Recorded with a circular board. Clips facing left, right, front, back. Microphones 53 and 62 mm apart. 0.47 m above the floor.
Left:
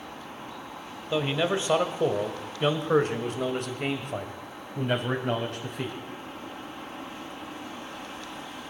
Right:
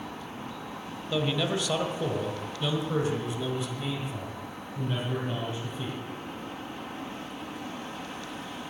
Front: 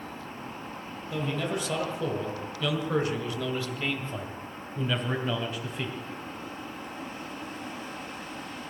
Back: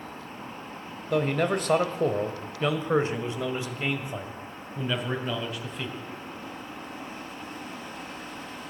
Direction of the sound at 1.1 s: 155° left.